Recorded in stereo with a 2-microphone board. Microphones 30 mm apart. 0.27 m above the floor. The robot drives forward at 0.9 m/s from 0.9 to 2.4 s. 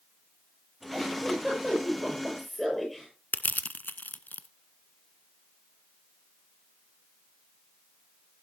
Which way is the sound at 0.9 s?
5° left (ahead or behind).